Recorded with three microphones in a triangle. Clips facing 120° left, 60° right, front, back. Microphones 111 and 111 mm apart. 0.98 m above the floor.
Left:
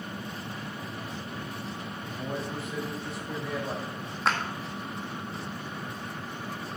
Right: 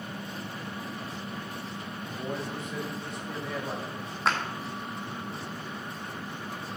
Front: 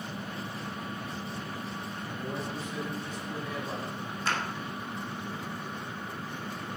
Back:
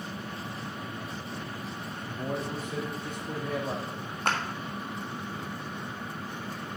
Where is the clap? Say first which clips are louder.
Even, back 3 dB; 150° right, 1.3 m.